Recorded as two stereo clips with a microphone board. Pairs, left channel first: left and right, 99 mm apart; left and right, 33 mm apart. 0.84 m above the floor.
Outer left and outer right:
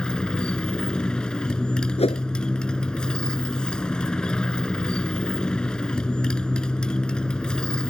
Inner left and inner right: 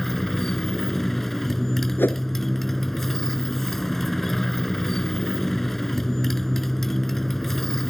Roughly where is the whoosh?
Left.